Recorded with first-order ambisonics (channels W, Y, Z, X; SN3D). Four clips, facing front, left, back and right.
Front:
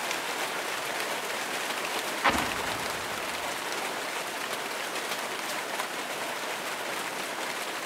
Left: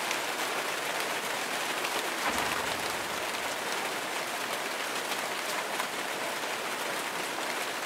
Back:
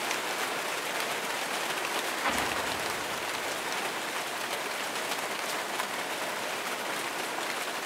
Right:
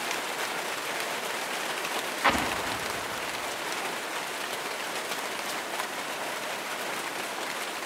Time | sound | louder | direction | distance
2.2 | an explosion | right 7 dB, front 5 dB | 55° right | 1.3 m